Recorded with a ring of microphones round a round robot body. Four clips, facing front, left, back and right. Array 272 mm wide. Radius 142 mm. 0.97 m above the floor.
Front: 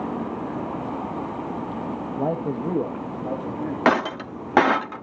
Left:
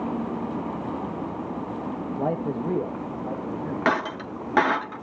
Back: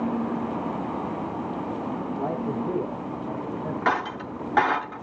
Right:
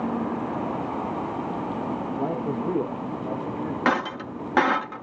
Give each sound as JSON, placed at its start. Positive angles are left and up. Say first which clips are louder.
{"t": 2.2, "sound": "a man speaking", "louder": "left 3 dB, front 5 dB", "azimuth_deg": 35, "distance_m": 1.0}
{"t": 3.9, "sound": "breaking glass", "louder": "even, front 6 dB", "azimuth_deg": 5, "distance_m": 0.7}